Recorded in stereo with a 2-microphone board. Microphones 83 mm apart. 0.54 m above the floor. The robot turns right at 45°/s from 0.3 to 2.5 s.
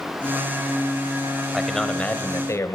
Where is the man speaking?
5° right, 2.5 m; by 2.8 s 40° left, 2.5 m.